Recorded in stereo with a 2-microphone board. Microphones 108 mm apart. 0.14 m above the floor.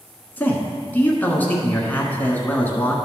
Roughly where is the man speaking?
Centre.